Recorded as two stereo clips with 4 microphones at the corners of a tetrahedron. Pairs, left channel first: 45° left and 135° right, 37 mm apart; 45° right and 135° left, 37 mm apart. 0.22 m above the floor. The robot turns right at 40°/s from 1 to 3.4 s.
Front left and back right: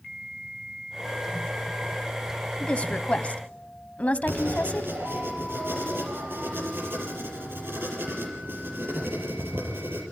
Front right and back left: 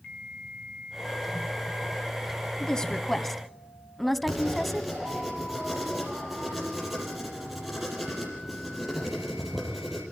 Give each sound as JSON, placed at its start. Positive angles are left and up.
{"t": 2.6, "sound": "a woman speaking", "azimuth_deg": 10, "distance_m": 1.1}
{"t": 4.3, "sound": "writing", "azimuth_deg": -140, "distance_m": 5.0}